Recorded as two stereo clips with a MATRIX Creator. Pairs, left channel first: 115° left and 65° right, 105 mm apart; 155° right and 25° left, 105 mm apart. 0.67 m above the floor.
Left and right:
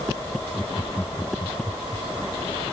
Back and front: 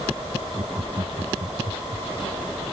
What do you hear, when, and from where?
0.6 s laughter: 45° left